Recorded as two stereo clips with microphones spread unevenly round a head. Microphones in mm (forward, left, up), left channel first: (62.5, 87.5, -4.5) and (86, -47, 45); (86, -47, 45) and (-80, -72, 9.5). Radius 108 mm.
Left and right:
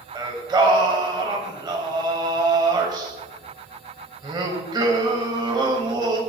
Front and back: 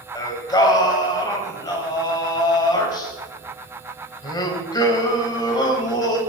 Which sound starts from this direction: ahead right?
Singing, at 0.1 s.